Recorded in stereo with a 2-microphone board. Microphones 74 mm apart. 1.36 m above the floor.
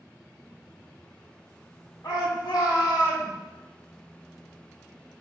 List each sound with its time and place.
2.0 s a shout: 65° left (ahead or behind), 4 m; by 3.3 s 80° left, 3.5 m